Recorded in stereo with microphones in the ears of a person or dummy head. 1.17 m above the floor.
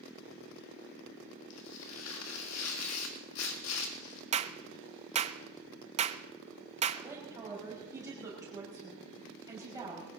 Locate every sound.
1.5 s tearing paper: 85° left, 1.6 m
4.3 s a clap: 30° right (ahead or behind), 0.6 m
7.0 s a woman speaking: 15° right (ahead or behind), 6 m